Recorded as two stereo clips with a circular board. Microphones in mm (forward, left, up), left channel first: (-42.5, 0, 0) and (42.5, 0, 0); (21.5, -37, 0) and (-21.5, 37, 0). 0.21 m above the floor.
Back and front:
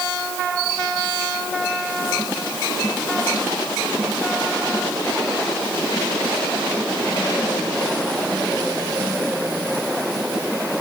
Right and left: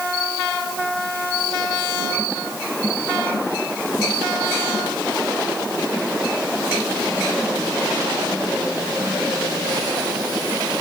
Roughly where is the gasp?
I don't hear a gasp.